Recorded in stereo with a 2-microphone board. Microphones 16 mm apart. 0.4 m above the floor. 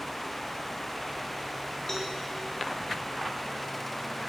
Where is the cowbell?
20° left (ahead or behind), 6 m.